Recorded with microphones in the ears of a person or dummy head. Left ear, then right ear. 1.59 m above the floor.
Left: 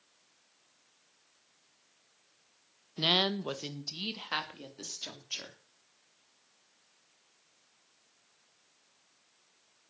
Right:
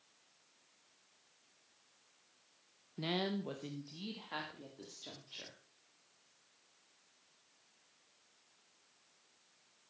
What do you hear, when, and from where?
3.0 s a woman speaking: 45° left (ahead or behind), 1.0 m; by 5.6 s 65° left (ahead or behind), 3.5 m